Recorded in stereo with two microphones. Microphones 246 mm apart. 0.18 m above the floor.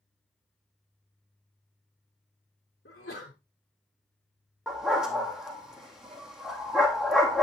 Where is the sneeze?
50° left (ahead or behind), 1.8 m.